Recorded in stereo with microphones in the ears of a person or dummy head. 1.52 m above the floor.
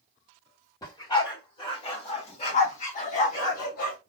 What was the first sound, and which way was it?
A dog barking, 25° left (ahead or behind).